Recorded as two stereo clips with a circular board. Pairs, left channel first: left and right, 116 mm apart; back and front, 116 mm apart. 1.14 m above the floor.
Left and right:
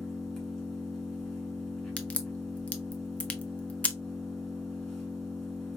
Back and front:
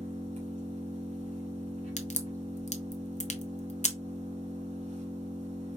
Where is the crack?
170° left, 0.6 m.